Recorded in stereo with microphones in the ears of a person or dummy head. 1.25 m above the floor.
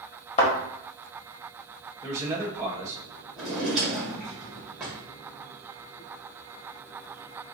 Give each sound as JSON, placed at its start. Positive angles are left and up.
{"t": 0.4, "sound": "a thud", "side_deg": 30, "distance_m": 1.7}
{"t": 2.0, "sound": "a man speaking", "side_deg": -20, "distance_m": 1.8}
{"t": 3.4, "sound": "a drawer", "side_deg": -10, "distance_m": 2.0}